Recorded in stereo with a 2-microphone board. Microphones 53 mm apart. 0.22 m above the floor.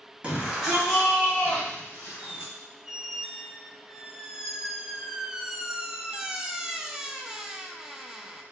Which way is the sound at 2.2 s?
10° right (ahead or behind).